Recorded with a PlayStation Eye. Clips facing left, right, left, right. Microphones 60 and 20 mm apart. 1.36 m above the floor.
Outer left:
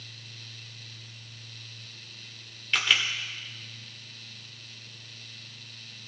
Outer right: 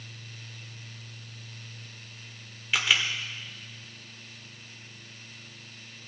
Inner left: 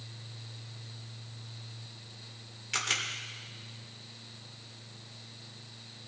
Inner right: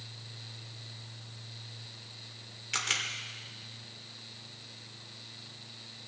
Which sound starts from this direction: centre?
A camera shutter, at 2.7 s.